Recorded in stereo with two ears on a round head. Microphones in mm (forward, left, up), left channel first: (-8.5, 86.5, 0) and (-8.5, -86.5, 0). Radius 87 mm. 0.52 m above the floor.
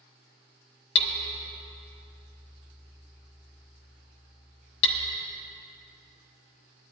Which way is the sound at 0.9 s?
60° left (ahead or behind).